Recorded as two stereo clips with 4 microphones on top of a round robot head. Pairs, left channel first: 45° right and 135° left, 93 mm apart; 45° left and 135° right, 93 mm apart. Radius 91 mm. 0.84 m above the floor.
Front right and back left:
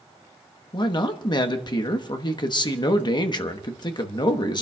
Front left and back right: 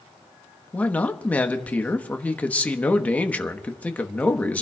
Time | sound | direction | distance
0.7 | a man speaking | 25° right | 1.2 m